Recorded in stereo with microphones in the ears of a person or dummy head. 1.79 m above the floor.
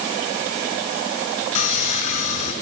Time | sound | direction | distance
1.6 | sawing | 40° left (ahead or behind) | 5.5 m